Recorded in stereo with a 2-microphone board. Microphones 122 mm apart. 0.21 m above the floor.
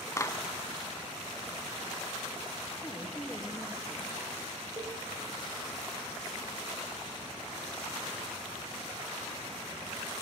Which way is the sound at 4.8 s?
35° right (ahead or behind).